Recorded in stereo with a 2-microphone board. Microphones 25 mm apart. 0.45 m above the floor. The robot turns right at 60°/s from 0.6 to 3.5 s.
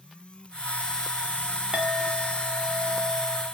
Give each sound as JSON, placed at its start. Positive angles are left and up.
{"t": 1.7, "sound": "a clink", "azimuth_deg": -105, "distance_m": 0.9}